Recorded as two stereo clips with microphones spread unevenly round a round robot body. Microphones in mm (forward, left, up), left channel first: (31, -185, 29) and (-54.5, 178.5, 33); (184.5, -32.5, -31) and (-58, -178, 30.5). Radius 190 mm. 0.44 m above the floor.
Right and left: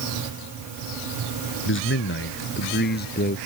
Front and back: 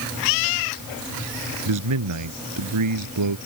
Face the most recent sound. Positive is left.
turn(degrees=-145)